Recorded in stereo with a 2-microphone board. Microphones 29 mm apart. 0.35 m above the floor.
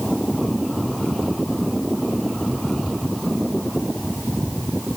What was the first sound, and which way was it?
Only background noise.